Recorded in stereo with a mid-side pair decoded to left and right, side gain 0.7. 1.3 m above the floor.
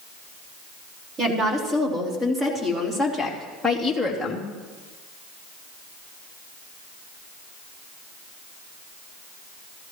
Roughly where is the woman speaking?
Ahead right.